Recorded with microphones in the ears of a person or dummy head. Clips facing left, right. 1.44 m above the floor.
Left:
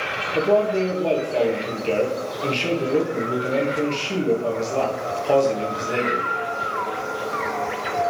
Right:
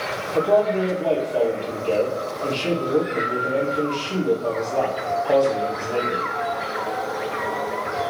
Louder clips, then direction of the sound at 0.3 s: Even; 25° left (ahead or behind).